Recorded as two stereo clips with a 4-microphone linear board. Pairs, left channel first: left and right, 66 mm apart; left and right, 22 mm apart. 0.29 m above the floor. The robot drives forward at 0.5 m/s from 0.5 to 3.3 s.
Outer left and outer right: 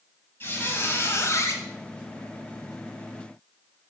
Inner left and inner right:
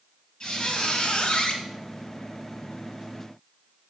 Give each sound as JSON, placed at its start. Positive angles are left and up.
{"t": 0.4, "sound": "a squeak", "side_deg": 35, "distance_m": 1.0}